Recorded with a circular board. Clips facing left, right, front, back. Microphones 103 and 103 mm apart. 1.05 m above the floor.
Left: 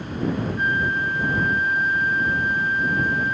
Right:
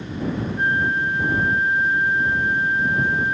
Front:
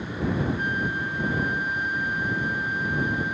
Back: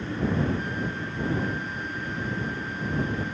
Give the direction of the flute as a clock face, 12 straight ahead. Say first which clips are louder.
Right 2 dB, front 3 dB; 1 o'clock.